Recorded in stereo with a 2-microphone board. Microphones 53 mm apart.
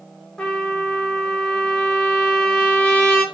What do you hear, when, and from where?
0.4 s a trumpet: 15° left (ahead or behind), 1.0 m